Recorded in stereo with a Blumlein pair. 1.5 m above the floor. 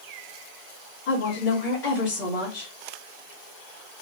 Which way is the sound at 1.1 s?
35° left.